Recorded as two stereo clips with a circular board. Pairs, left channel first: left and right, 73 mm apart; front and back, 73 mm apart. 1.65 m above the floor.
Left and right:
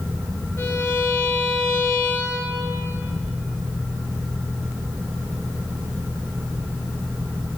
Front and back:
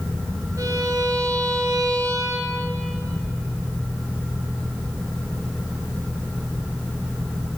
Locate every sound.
0.6 s a violin: 145° left, 2.5 m